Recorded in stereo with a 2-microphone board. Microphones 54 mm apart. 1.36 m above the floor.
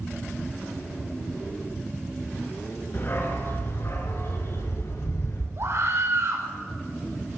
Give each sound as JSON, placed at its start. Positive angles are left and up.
{"t": 2.9, "sound": "a dog barking", "side_deg": 40, "distance_m": 5.5}
{"t": 5.6, "sound": "a scream", "side_deg": -55, "distance_m": 5.0}